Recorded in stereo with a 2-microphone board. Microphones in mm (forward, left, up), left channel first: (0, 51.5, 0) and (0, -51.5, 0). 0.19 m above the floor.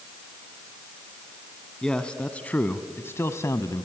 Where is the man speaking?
5° left (ahead or behind), 1.3 m; by 3.9 s 35° left (ahead or behind), 1.2 m.